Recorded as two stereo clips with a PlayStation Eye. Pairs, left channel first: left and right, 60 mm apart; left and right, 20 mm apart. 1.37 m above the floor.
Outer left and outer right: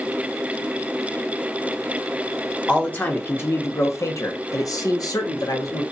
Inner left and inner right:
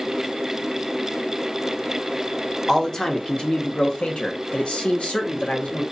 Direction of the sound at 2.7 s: 25° left (ahead or behind).